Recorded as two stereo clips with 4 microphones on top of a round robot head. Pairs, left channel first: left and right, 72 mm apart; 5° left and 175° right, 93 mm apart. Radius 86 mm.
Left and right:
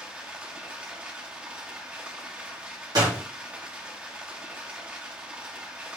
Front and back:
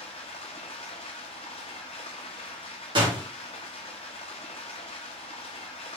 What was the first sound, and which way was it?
Running water, 20° right.